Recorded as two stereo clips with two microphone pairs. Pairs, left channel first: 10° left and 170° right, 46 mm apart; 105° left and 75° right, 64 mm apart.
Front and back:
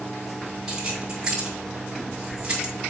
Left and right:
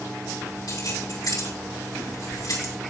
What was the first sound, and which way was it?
Keys jangling, 120° left.